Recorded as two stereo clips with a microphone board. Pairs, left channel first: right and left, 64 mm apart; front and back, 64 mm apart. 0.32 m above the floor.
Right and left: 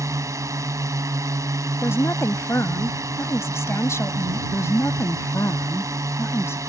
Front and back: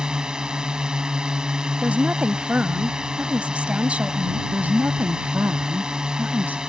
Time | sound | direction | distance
0.0 | a drone | 105° left | ?
1.8 | a woman speaking | 115° right | ?
4.5 | a woman speaking | 125° right | ?